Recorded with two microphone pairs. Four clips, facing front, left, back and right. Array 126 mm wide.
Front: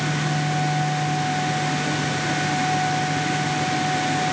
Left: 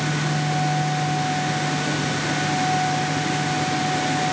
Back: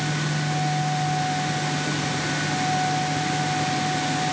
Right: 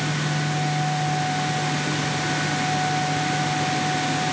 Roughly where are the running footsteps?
No running footsteps in this recording.